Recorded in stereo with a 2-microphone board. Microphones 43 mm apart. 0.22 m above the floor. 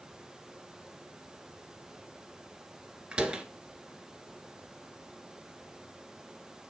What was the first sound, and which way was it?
A door slam, 25° right (ahead or behind).